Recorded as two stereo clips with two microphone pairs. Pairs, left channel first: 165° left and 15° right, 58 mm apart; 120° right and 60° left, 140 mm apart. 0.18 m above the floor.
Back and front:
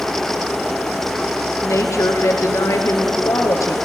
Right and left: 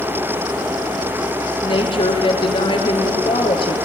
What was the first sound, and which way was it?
A woman speaking, 165° right.